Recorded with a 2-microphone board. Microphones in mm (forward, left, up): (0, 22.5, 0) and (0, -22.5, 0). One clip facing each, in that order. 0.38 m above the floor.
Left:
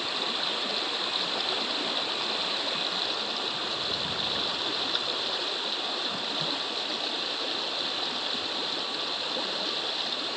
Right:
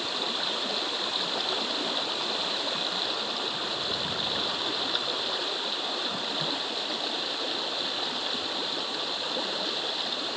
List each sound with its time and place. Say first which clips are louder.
0.0 s running water: even; 5° right (ahead or behind)